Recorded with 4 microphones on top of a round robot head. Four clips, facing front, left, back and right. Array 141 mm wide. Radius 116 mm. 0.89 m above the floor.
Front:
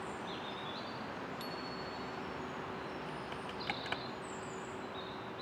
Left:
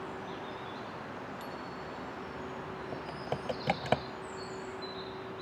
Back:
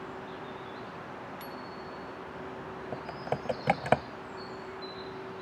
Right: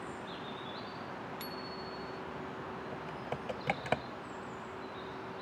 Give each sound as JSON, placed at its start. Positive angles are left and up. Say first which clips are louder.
{"t": 1.4, "sound": "a bicycle bell", "louder": "left 1 dB, back 1 dB", "azimuth_deg": -85}
{"t": 2.9, "sound": "typing on a keyboard", "louder": "left 6 dB, back 8 dB", "azimuth_deg": 160}